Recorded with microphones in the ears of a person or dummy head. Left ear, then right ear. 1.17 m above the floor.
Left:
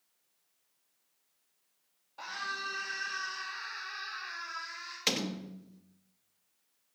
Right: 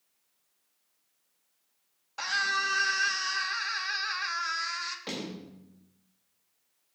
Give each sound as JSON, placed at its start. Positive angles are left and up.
{"t": 2.2, "sound": "a scream", "side_deg": -60, "distance_m": 2.5}
{"t": 5.1, "sound": "a door slam", "side_deg": 75, "distance_m": 1.3}